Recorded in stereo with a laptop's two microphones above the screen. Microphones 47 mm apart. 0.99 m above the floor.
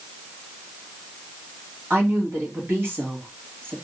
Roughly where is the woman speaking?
Right.